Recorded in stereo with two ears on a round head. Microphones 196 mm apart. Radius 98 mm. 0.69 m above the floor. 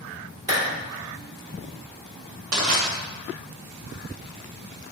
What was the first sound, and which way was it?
A clap, 15° right (ahead or behind).